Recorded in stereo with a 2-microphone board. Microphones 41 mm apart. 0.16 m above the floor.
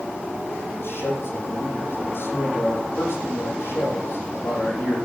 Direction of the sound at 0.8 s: 60° left (ahead or behind).